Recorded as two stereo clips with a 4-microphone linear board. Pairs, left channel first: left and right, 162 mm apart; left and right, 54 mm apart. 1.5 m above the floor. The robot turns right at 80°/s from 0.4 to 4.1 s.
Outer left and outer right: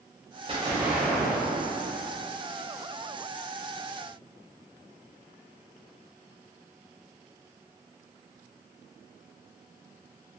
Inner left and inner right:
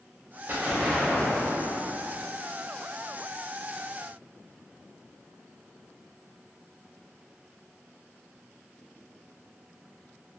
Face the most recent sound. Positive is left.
turn(degrees=-110)